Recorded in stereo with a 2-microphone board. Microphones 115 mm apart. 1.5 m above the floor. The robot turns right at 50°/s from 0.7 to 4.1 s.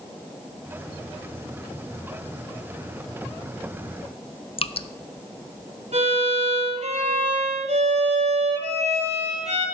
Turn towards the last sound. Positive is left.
turn(degrees=-80)